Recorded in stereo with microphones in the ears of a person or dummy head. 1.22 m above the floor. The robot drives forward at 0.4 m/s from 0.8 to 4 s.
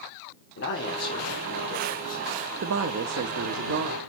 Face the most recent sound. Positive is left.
turn(degrees=-55)  # may be behind; listen again after turning